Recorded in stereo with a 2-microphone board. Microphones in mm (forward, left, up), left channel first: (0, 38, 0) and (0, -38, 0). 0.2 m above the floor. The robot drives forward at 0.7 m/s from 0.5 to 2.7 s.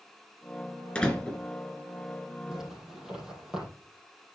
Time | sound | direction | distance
0.9 | a door slam | 15° left (ahead or behind) | 2.5 m
2.5 | a zipper | 5° right (ahead or behind) | 6.5 m